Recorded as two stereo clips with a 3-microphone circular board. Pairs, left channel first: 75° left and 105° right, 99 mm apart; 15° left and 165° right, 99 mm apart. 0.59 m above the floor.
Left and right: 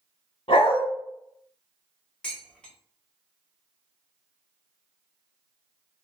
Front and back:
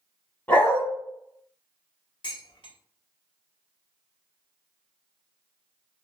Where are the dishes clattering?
5° right, 0.9 m.